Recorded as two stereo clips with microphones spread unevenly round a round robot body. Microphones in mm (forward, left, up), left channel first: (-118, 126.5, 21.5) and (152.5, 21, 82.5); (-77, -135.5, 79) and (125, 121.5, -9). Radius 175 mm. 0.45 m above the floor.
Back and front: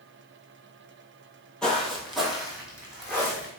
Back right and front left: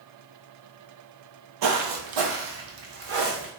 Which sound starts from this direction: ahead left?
Footsteps, at 1.6 s.